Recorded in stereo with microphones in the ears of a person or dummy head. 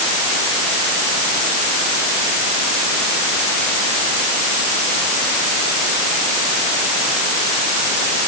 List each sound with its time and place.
Only background noise.